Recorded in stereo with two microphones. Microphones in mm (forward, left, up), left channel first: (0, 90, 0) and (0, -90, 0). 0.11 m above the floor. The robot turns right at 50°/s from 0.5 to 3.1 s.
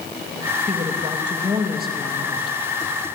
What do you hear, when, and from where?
0.7 s a woman speaking: 60° right, 4 m; by 2.6 s 35° left, 4 m